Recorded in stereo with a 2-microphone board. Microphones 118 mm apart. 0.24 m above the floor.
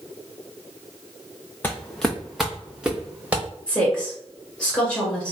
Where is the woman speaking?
5° left (ahead or behind), 2 m.